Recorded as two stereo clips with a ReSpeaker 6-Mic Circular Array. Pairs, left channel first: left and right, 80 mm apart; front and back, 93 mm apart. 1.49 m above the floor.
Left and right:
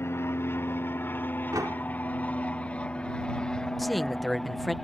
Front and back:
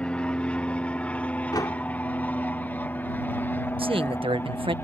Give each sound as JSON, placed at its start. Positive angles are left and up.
{"t": 0.0, "sound": "an aircraft", "azimuth_deg": 70}
{"t": 1.5, "sound": "a door slam", "azimuth_deg": -45}
{"t": 3.8, "sound": "a man speaking", "azimuth_deg": 180}